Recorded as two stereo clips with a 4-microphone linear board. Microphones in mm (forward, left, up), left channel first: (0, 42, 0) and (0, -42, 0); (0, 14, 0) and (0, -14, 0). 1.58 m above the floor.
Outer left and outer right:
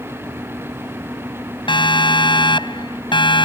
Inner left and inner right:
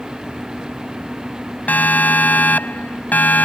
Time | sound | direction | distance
1.7 | a siren | 70° left (ahead or behind) | ?